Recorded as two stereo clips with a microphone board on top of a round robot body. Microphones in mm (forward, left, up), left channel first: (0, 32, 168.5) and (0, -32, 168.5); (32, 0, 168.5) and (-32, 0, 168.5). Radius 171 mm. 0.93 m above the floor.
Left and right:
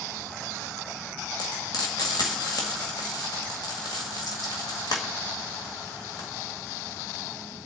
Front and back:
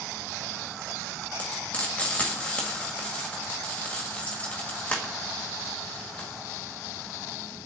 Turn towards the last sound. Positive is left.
turn(degrees=70)